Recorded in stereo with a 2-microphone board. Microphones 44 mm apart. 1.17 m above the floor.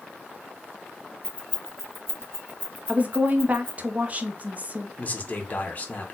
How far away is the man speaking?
About 0.8 m.